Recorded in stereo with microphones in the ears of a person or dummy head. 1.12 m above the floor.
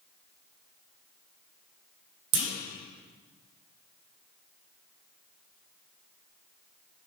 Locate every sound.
2.3 s a clunk: 65° right (ahead or behind), 1.3 m